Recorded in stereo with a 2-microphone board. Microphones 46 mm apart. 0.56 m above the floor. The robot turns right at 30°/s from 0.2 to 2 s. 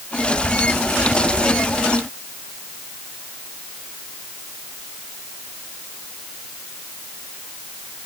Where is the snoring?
I don't hear snoring.